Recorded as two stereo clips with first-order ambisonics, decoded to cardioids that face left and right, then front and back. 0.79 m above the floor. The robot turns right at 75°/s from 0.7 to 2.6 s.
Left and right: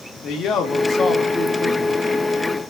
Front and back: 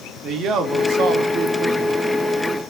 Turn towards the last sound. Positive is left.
turn(degrees=-80)